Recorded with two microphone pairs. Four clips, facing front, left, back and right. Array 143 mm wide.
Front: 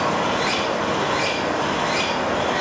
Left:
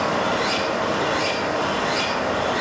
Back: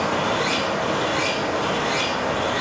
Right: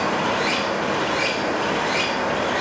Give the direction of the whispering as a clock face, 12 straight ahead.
No whispering in this recording.